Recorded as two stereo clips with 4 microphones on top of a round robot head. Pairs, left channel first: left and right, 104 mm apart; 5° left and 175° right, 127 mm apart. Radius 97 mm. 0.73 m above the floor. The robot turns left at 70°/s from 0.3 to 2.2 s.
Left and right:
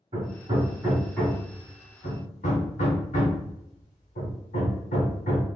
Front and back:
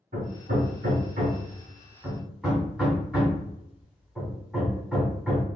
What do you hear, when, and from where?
0.1 s hammering: 125° right, 1.6 m; by 5.5 s 100° left, 1.6 m